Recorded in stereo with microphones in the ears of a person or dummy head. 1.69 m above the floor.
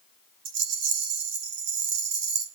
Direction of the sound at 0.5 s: 75° right (ahead or behind).